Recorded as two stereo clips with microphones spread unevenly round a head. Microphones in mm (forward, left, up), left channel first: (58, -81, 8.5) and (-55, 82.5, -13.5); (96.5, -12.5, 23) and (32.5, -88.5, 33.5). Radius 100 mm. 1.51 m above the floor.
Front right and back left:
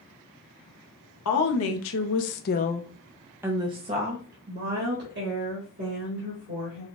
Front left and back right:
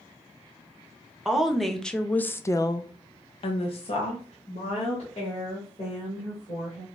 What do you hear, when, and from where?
1.2 s a woman speaking: 40° right, 1.1 m; by 6.9 s 100° left, 2 m